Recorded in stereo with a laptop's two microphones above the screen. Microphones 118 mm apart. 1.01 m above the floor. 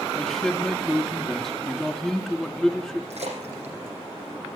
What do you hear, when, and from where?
0.1 s a man speaking: 5° left (ahead or behind), 2.5 m
3.1 s a splash: 75° right (ahead or behind), 7 m